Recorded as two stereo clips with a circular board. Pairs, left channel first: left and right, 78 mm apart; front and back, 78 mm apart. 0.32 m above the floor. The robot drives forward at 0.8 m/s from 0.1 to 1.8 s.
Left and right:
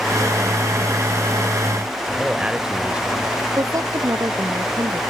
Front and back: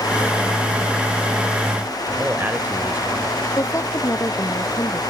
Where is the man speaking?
150° right.